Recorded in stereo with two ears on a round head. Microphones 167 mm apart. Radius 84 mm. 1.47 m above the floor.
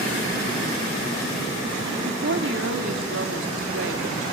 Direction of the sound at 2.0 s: 65° right (ahead or behind).